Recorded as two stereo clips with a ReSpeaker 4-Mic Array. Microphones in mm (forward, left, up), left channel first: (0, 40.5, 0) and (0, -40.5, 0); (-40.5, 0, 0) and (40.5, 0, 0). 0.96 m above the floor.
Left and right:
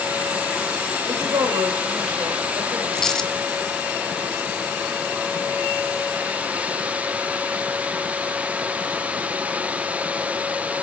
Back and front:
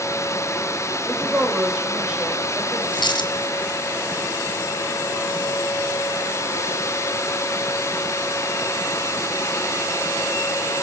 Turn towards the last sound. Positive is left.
turn(degrees=175)